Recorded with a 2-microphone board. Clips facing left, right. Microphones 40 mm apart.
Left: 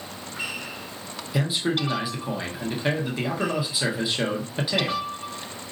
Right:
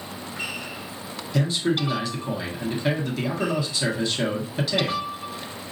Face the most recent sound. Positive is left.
turn(degrees=15)  # may be behind; listen again after turning